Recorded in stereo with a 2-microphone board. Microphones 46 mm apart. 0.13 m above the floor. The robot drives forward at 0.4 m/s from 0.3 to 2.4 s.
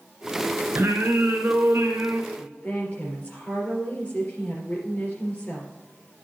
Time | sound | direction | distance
0.8 | singing | 55° right (ahead or behind) | 2.5 m
2.3 | a woman speaking | 35° left (ahead or behind) | 3.5 m